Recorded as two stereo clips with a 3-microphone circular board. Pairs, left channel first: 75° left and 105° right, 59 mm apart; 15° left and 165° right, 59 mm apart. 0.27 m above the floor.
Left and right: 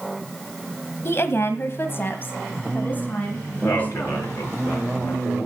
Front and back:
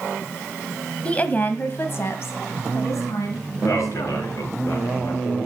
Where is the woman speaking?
75° left, 1.3 m; by 4.6 s 10° left, 2.5 m.